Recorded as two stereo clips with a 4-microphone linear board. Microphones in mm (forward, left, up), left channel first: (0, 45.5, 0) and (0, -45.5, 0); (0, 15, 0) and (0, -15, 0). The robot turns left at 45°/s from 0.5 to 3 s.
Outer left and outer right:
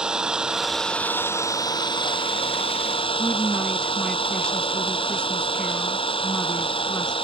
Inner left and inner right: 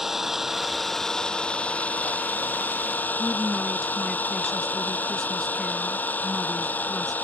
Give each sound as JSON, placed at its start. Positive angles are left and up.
{"t": 0.0, "sound": "an engine running", "azimuth_deg": -170}
{"t": 3.2, "sound": "a woman speaking", "side_deg": 10}